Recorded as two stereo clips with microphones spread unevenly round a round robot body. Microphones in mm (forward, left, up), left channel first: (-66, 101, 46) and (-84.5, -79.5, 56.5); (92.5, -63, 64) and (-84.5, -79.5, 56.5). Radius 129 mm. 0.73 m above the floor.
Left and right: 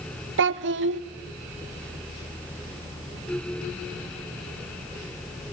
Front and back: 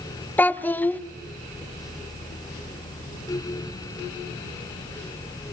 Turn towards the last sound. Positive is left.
turn(degrees=-75)